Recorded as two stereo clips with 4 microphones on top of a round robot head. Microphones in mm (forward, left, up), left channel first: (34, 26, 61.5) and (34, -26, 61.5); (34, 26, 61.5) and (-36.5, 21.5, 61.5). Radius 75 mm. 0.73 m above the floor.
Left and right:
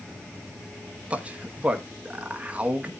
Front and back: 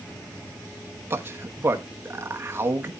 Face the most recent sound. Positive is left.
turn(degrees=-140)